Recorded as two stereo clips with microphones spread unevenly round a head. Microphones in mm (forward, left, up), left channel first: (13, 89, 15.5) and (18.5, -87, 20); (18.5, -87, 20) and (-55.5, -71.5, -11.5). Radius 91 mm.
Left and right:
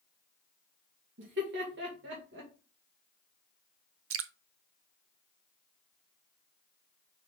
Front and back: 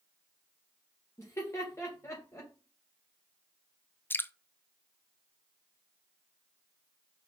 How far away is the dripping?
About 0.6 m.